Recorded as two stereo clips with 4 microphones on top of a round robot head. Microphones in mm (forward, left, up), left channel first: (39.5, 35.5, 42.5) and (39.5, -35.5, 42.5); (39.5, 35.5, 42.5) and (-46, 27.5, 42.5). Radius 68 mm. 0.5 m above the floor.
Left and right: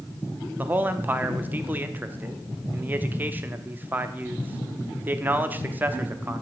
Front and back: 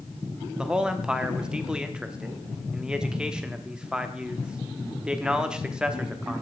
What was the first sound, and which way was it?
A man speaking, 105° right.